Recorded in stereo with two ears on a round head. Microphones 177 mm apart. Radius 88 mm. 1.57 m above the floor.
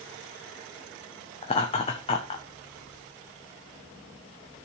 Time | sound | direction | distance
1.4 | laughter | 30° left (ahead or behind) | 1.0 m